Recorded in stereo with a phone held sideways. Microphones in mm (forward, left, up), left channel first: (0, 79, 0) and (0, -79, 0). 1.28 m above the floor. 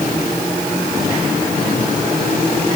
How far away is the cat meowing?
I don't hear a cat meowing.